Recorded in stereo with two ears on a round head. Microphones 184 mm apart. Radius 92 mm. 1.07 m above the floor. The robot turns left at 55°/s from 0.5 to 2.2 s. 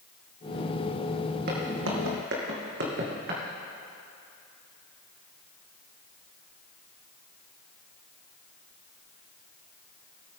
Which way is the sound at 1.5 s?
45° right (ahead or behind).